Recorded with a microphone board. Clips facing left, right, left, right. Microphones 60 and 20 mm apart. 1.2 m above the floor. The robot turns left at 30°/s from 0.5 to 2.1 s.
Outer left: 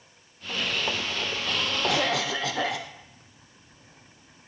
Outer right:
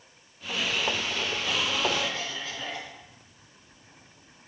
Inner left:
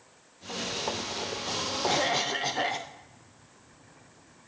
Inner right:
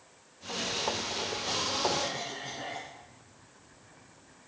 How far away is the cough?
About 0.7 m.